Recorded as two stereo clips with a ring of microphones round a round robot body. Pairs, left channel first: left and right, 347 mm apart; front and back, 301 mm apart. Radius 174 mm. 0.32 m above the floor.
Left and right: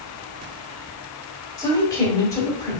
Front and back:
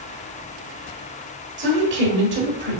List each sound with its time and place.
1.6 s a woman speaking: 165° left, 1.3 m